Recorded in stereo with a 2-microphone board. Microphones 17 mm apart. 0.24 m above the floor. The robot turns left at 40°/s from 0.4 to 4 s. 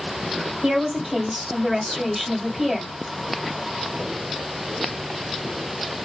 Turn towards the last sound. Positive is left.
turn(degrees=145)